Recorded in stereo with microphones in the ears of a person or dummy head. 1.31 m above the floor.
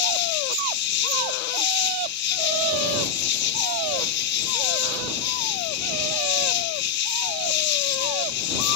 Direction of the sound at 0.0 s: 65° left (ahead or behind).